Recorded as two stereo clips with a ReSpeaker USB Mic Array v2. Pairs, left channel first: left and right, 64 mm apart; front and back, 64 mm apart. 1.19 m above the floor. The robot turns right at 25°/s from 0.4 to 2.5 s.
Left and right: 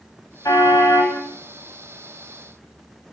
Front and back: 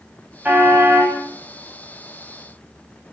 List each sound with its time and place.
0.5 s a car horn: 115° left, 4.5 m; by 1.2 s 135° left, 4.5 m